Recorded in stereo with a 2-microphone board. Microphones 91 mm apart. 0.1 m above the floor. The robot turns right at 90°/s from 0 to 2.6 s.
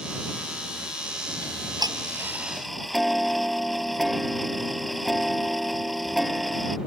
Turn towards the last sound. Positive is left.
turn(degrees=0)